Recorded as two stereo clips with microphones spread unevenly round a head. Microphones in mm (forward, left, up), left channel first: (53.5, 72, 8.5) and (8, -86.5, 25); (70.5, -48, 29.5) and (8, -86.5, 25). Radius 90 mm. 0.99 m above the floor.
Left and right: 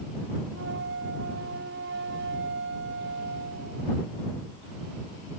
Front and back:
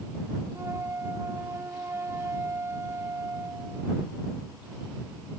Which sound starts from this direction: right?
A flute, at 0.5 s.